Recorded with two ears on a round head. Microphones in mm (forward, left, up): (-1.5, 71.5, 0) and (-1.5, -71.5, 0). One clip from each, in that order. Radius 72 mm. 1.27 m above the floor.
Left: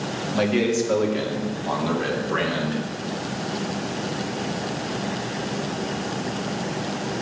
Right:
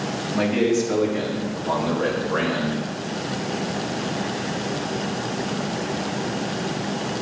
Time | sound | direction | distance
0.3 | a man speaking | 65° left (ahead or behind) | 2.5 m